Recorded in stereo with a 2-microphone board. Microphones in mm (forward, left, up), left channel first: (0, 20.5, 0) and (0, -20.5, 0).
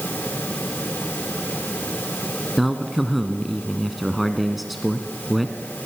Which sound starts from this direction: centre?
A man speaking, at 2.6 s.